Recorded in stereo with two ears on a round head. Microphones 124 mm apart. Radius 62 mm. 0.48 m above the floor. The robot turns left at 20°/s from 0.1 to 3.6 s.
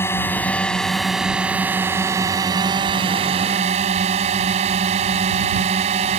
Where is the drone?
20° left; by 6.2 s 50° right.